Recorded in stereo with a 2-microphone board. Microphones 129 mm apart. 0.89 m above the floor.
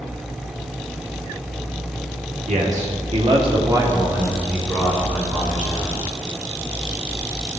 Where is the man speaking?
80° right, 1.8 m; by 6.0 s 15° left (ahead or behind), 4 m.